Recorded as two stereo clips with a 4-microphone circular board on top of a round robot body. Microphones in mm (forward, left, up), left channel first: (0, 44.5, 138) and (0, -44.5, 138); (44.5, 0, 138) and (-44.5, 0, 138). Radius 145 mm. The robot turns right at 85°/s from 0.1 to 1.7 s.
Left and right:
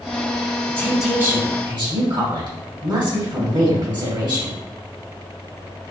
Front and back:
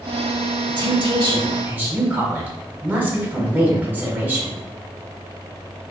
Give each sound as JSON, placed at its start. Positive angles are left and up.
{"t": 0.7, "sound": "a woman speaking", "azimuth_deg": 160, "distance_m": 1.3}